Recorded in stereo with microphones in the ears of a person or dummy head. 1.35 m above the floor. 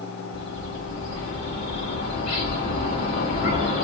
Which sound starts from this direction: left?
A bird, at 0.3 s.